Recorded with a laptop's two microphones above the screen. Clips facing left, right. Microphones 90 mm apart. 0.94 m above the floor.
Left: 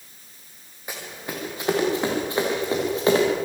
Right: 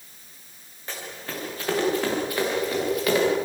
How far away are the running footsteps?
About 5.5 m.